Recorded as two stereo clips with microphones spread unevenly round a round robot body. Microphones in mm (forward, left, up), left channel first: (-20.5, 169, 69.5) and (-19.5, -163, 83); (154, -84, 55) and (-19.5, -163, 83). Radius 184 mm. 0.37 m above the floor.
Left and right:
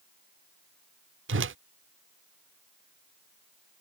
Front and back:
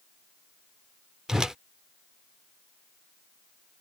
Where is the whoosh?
60° right.